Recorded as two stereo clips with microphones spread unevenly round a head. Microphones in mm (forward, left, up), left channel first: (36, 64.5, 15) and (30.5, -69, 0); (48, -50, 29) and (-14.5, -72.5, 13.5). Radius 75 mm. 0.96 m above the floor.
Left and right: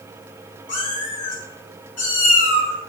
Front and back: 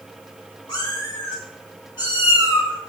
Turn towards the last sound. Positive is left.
turn(degrees=65)